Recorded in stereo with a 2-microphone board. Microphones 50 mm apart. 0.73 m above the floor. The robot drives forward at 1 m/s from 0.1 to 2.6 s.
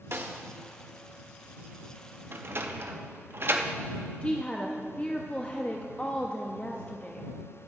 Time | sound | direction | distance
0.1 | a snare drum | 60° right (ahead or behind) | 0.9 m
2.3 | a sliding door | 50° right (ahead or behind) | 0.6 m
4.2 | a woman speaking | 25° left (ahead or behind) | 0.6 m